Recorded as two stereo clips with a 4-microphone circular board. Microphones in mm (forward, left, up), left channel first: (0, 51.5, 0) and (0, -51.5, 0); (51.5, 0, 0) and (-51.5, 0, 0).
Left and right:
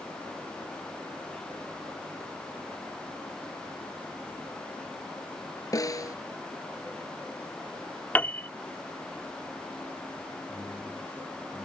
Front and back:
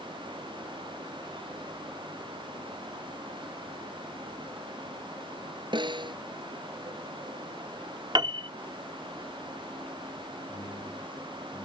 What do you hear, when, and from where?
5.7 s a snare drum: 145° left
8.2 s a piano: 160° left
10.5 s a man speaking: 20° left